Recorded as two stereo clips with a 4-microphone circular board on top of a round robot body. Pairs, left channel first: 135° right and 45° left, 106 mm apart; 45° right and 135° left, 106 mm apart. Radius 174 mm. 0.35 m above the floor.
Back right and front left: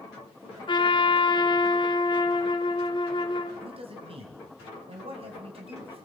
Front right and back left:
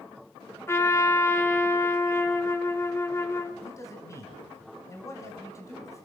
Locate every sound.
0.7 s a trumpet: 105° right, 1.9 m
3.6 s a man speaking: 15° left, 4 m